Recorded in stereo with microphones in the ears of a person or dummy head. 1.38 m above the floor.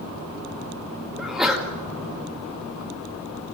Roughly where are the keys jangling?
No keys jangling in this recording.